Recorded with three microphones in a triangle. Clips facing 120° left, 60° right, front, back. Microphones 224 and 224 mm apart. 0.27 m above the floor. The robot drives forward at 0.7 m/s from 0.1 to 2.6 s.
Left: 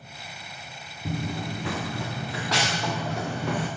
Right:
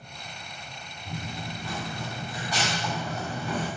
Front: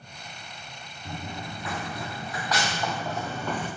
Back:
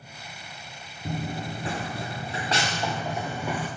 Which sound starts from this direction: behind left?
Running footsteps, at 1.1 s.